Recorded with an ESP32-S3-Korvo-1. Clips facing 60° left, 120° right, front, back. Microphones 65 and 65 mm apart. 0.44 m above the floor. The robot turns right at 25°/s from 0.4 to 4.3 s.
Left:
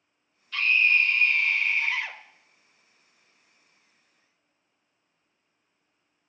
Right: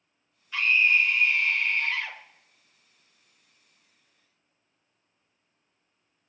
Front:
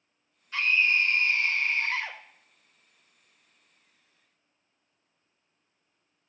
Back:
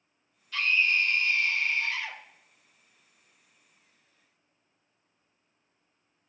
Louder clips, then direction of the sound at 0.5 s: Even, front 1 dB; 55° right.